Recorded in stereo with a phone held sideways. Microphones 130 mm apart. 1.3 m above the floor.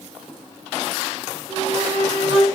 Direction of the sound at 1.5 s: 40° right (ahead or behind).